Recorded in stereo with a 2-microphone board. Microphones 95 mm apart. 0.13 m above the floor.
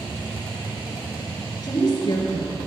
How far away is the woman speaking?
About 2.0 m.